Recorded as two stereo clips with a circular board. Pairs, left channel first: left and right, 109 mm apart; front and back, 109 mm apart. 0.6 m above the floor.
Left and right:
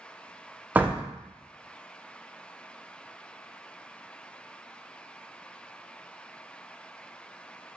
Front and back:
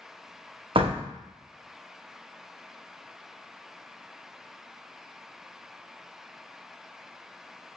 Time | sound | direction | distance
0.8 | a door slam | 165° right | 0.5 m